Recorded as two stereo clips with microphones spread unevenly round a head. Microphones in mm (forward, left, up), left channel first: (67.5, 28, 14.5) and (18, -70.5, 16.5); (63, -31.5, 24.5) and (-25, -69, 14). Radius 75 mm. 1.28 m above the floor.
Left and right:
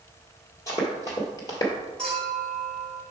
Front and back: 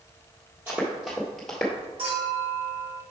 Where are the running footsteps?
125° left, 1.7 m; by 1.7 s 75° left, 1.3 m.